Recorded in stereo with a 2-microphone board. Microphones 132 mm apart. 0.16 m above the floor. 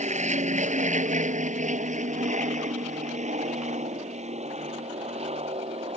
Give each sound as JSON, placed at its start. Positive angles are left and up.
{"t": 0.0, "sound": "an aircraft", "side_deg": -60}